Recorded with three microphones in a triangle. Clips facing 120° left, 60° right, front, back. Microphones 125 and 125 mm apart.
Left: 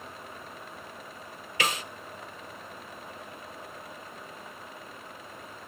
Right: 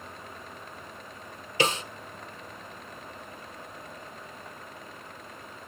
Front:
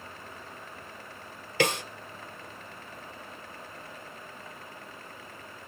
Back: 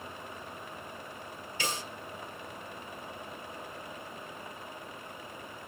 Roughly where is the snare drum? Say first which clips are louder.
Right 4 dB, front 10 dB; ahead.